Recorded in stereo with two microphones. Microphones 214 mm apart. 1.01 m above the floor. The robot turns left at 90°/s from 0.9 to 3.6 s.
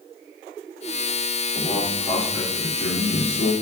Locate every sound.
1.5 s a man speaking: 145° right, 1.8 m; by 3.5 s 35° left, 1.8 m